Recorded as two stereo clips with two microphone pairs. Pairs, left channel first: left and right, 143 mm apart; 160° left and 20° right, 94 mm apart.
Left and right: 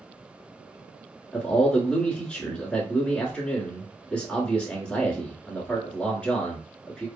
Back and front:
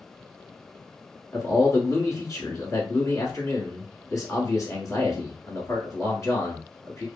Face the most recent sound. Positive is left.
turn(degrees=170)